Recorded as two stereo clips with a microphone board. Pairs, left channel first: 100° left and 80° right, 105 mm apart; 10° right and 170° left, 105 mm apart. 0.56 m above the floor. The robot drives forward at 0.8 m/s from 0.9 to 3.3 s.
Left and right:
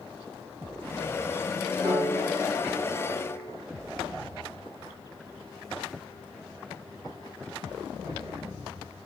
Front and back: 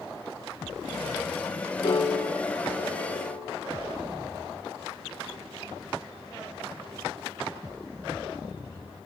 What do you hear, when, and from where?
1.8 s a piano: 45° right, 3.5 m; by 3.5 s 60° right, 3 m